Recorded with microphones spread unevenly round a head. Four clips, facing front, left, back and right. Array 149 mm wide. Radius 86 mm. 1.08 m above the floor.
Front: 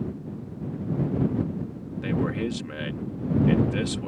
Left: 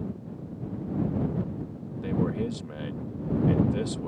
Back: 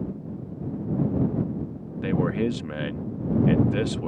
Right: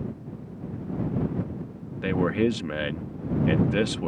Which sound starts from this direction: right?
A man speaking, at 2.0 s.